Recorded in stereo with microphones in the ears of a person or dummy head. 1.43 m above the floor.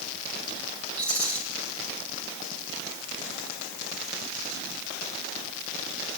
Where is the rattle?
10° left (ahead or behind), 3.5 m.